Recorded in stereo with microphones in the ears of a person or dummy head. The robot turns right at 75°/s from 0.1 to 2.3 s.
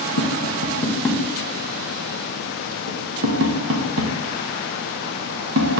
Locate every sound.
0.2 s tapping: 75° left (ahead or behind), 0.9 m; by 5.8 s 75° right (ahead or behind), 0.9 m